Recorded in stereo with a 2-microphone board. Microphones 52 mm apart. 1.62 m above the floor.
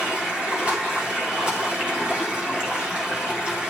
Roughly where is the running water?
Centre.